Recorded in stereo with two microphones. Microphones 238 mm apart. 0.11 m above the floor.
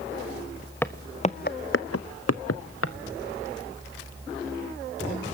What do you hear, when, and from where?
0.8 s footsteps: 10° left (ahead or behind), 0.8 m; by 3.0 s 65° left (ahead or behind), 1.0 m